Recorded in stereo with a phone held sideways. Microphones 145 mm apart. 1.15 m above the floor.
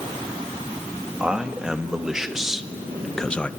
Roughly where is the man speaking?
Centre.